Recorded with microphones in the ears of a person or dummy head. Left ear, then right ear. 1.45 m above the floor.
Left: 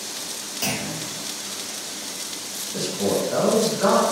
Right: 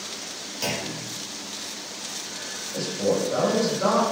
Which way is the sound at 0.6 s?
5° right (ahead or behind).